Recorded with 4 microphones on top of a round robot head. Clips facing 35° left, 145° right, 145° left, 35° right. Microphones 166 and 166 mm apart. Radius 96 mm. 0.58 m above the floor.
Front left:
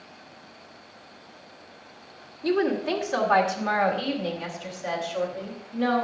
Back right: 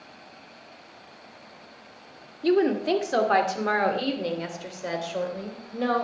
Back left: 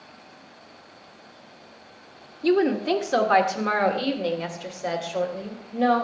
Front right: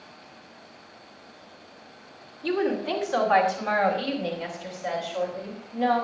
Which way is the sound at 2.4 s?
170° left.